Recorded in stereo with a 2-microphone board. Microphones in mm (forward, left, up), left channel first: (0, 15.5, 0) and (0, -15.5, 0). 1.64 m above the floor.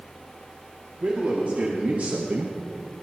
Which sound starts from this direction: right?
A man speaking, at 1.0 s.